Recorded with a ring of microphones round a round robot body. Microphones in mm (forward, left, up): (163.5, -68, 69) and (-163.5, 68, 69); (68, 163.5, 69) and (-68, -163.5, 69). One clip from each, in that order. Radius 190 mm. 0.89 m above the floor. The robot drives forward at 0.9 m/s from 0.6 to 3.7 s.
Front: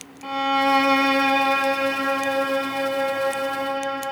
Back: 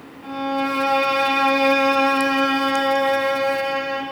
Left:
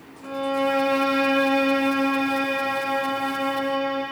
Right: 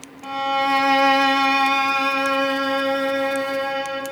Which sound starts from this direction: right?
A violin, at 0.2 s.